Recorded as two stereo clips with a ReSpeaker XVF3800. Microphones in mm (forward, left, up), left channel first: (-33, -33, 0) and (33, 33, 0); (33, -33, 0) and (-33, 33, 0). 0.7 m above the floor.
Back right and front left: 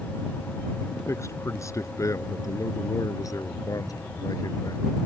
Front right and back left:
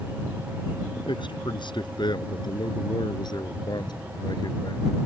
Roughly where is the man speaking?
Right.